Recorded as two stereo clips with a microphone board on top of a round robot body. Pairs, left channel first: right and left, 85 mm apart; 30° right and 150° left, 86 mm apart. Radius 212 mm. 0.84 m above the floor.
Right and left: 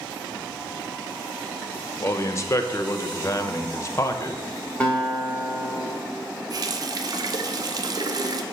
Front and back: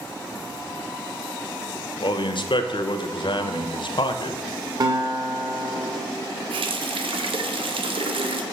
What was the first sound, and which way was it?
A man speaking, 35° right.